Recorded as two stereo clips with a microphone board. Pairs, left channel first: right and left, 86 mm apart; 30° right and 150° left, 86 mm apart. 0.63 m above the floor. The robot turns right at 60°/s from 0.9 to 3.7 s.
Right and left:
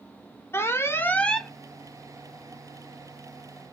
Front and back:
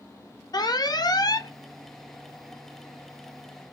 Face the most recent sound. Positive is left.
turn(degrees=130)